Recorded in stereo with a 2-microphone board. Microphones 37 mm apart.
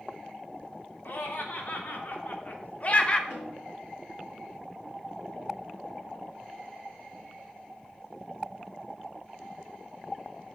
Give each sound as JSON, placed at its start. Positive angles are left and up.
{"t": 1.1, "sound": "laughter", "side_deg": 70, "distance_m": 2.0}
{"t": 3.3, "sound": "a snare drum", "side_deg": 60, "distance_m": 5.5}